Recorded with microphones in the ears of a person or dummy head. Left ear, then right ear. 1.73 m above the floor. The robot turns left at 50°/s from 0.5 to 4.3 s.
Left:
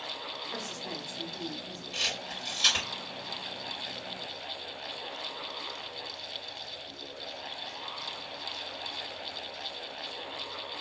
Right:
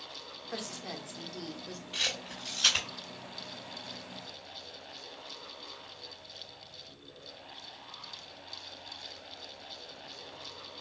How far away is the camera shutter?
About 2.0 m.